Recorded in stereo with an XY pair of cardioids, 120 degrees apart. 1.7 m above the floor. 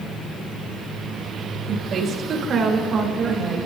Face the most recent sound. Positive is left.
turn(degrees=-45)